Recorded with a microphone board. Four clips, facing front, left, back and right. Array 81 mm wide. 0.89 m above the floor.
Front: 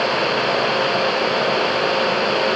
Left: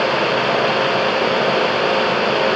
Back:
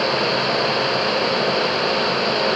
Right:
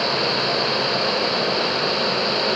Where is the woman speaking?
I don't hear a woman speaking.